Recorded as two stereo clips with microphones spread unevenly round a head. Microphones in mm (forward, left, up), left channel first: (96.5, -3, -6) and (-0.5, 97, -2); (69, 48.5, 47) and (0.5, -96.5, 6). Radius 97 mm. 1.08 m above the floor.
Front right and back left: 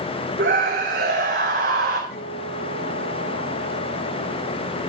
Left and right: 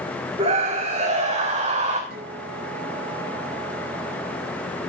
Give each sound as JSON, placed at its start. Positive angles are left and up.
{"t": 0.4, "sound": "a scream", "azimuth_deg": 180, "distance_m": 2.5}
{"t": 2.1, "sound": "a guitar", "azimuth_deg": -85, "distance_m": 8.5}